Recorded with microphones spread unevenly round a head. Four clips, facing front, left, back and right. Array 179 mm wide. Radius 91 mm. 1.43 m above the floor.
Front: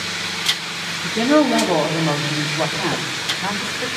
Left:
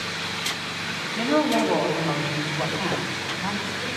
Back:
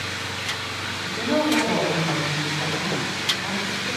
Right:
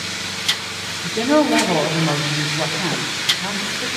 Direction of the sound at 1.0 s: 55° right.